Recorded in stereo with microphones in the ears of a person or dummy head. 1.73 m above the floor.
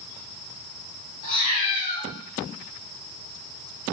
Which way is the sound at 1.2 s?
45° left (ahead or behind).